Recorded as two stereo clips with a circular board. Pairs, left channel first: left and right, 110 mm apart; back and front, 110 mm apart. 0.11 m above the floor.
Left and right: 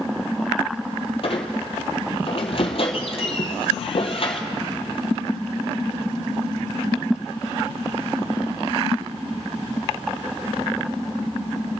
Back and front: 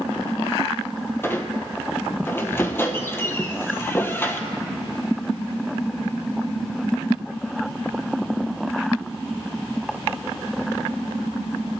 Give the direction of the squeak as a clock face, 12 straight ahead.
8 o'clock.